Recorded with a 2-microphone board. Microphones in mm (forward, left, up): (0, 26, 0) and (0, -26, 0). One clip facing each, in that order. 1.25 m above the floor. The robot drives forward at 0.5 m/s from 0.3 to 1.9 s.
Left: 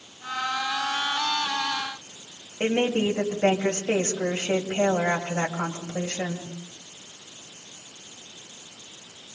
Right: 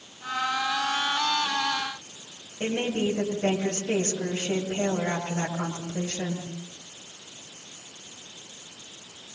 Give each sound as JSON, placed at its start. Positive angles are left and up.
{"t": 2.6, "sound": "a woman speaking", "side_deg": 45, "distance_m": 7.5}